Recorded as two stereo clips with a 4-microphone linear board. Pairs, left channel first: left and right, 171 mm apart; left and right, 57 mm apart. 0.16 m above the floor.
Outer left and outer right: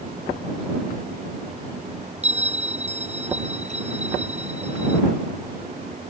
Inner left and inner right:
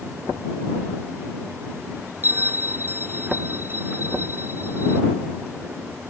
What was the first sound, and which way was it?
A bell, 40° right (ahead or behind).